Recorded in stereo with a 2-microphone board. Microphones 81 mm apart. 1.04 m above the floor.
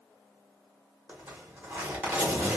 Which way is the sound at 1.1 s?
20° right (ahead or behind).